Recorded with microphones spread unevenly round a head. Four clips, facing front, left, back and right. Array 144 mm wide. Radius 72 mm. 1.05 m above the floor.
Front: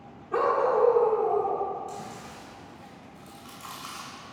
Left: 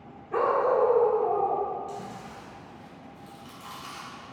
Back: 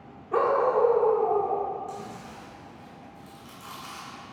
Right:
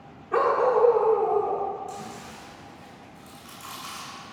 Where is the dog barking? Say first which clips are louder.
Right 2 dB, back 1 dB; 135° right, 1.1 m; by 1.7 s 85° right, 1.7 m.